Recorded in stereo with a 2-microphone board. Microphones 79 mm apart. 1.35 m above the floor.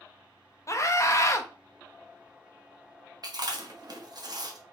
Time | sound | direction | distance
0.7 | a scream | 40° left (ahead or behind) | 0.6 m
3.2 | chewing | 55° right (ahead or behind) | 1.0 m